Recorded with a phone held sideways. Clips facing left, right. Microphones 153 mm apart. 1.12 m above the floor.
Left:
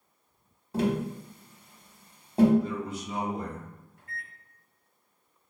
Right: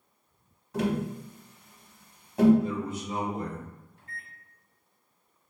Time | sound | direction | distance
0.7 | tapping | 30° left (ahead or behind) | 1.1 m
2.6 | a man speaking | 50° right (ahead or behind) | 1.7 m
4.0 | a microwave | 30° right (ahead or behind) | 1.4 m